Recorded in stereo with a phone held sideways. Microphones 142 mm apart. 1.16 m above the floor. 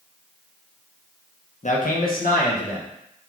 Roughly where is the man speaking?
Left.